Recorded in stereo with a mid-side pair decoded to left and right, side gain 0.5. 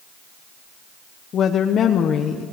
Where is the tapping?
No tapping in this recording.